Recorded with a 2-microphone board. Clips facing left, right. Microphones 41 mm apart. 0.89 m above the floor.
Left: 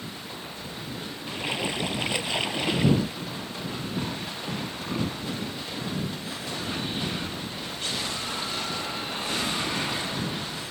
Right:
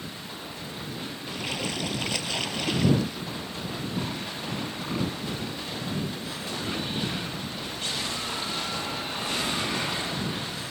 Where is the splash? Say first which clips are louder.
Left 3 dB; 20° left (ahead or behind).